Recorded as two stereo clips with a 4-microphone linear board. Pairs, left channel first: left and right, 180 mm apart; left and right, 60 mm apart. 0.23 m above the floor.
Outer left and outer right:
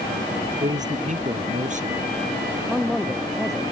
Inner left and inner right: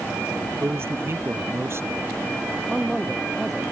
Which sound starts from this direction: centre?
A man speaking, at 2.7 s.